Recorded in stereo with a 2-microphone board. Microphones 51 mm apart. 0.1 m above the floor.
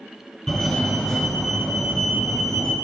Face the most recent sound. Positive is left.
turn(degrees=10)  # may be behind; listen again after turning